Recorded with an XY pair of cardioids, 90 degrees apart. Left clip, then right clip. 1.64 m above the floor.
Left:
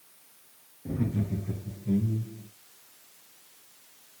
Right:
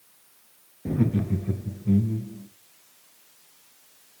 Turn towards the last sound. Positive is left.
turn(degrees=-55)